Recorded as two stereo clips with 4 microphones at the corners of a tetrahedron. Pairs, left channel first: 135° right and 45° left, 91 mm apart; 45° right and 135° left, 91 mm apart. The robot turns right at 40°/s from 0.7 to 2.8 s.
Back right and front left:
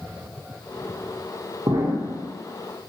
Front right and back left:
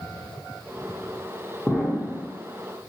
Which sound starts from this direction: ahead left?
An explosion, at 1.7 s.